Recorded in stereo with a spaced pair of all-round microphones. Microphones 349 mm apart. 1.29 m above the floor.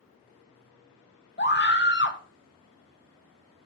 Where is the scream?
30° left (ahead or behind), 0.6 m.